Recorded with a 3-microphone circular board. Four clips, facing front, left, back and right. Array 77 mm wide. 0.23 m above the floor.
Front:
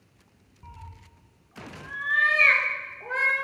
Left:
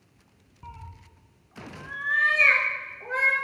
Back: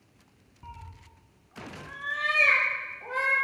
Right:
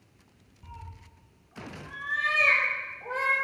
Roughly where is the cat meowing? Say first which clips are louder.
Left 3 dB, back 1 dB; left.